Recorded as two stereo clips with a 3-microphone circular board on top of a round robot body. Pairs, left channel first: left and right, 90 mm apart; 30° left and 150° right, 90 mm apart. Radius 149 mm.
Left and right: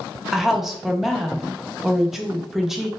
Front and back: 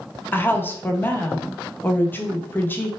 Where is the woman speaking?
10° right, 0.9 m.